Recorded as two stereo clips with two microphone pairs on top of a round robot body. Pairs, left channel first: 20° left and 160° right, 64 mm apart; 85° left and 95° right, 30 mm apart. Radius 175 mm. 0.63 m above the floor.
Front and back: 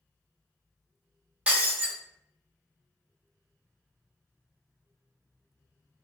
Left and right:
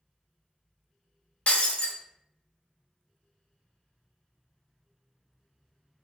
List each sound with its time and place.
1.5 s breaking glass: 130° left, 0.6 m